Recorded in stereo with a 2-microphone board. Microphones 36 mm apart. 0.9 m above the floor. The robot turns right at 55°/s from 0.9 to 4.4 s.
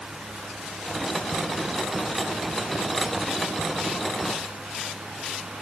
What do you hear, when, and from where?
Only background noise.